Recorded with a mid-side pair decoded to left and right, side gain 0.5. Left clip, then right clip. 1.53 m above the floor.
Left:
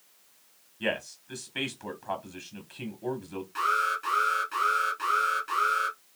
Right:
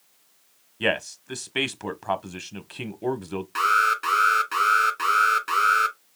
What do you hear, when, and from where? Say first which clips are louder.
0.8 s a man speaking: right 6 dB; 55° right, 1.0 m
3.5 s an alarm: right 6 dB; 65° right, 2 m